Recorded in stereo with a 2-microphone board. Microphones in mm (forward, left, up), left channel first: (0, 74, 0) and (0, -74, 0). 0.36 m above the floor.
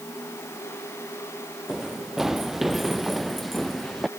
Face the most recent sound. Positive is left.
turn(degrees=0)  # may be behind; listen again after turning